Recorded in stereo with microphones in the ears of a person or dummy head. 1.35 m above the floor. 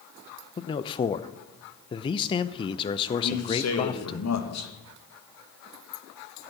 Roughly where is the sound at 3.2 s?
Left.